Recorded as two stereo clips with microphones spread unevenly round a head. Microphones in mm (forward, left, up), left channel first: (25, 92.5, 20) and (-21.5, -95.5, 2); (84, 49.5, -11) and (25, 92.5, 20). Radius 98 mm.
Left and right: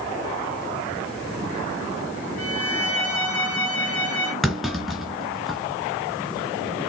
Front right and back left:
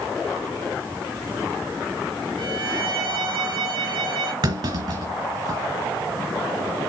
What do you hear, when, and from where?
2.4 s a violin: 160° left, 7.5 m
4.4 s a clunk: 165° left, 2.5 m